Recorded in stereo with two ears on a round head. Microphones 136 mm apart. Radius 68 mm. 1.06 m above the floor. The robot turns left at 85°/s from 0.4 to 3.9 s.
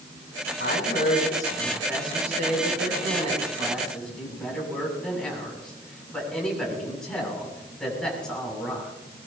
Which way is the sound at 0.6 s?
95° left.